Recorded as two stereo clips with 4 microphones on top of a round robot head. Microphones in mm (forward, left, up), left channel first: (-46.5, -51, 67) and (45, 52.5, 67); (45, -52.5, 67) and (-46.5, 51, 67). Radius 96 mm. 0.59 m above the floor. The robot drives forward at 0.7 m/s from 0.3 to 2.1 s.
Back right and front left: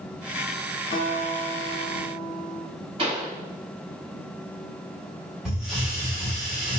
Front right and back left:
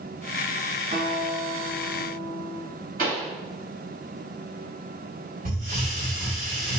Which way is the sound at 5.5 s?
135° left.